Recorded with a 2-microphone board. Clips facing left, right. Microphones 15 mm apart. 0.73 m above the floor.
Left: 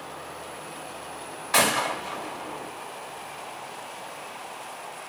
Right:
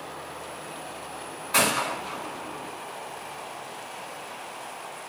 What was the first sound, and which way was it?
A gunshot, 45° left (ahead or behind).